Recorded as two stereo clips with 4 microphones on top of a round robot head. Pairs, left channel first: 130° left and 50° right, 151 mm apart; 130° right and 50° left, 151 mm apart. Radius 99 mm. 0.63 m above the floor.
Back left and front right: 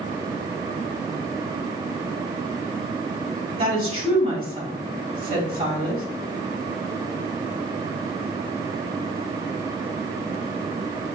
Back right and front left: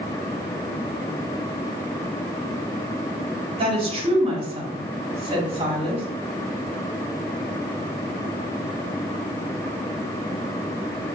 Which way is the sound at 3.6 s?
Straight ahead.